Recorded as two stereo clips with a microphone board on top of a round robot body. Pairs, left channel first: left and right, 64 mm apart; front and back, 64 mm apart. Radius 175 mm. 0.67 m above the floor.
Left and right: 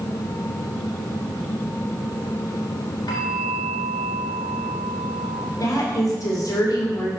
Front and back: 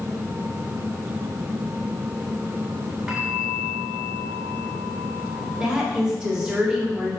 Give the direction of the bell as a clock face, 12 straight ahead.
9 o'clock.